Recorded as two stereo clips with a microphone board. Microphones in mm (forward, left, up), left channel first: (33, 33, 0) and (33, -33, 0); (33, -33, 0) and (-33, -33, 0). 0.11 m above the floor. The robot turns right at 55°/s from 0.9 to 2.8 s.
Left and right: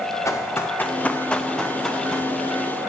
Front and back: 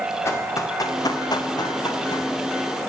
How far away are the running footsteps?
About 1.9 m.